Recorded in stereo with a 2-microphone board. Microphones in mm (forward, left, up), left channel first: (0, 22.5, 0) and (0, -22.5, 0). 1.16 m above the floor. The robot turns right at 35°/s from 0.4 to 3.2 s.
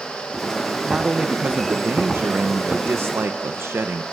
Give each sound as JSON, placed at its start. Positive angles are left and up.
{"t": 0.9, "sound": "a man speaking", "azimuth_deg": -160, "distance_m": 0.9}